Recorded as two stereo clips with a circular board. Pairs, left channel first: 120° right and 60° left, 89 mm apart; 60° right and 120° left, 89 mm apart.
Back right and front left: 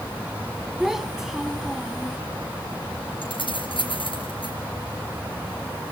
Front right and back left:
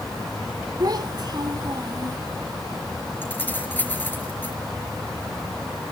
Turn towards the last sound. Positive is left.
turn(degrees=-125)